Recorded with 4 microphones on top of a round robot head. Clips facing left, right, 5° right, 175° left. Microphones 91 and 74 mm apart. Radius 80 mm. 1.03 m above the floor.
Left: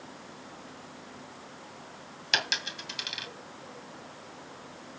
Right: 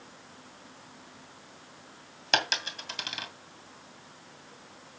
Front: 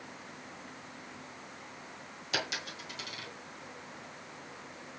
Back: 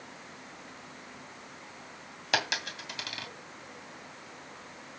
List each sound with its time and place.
2.3 s a dropped coin: 135° right, 2.5 m